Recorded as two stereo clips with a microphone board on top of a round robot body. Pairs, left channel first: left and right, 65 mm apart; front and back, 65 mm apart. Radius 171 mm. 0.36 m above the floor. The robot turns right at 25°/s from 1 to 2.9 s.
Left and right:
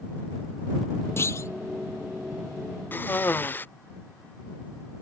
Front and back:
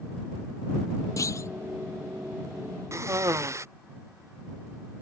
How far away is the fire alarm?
I don't hear a fire alarm.